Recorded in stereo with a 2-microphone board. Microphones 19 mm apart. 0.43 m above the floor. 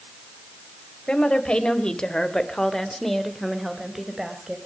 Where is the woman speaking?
60° left (ahead or behind), 2.5 m; by 4.6 s 15° right (ahead or behind), 2.5 m.